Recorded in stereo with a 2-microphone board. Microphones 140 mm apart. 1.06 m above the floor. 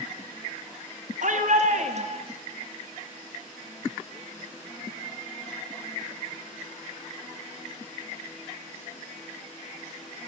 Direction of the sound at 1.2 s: 65° right (ahead or behind).